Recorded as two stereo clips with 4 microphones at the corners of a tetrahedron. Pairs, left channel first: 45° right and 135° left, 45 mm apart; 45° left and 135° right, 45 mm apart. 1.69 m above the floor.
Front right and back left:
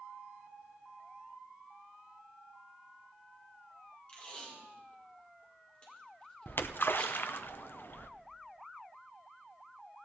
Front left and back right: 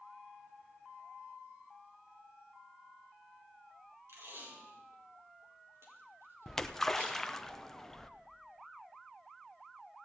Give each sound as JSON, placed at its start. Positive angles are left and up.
{"t": 4.1, "sound": "tape being pulled", "azimuth_deg": -110, "distance_m": 5.0}
{"t": 6.5, "sound": "a splash", "azimuth_deg": -35, "distance_m": 0.7}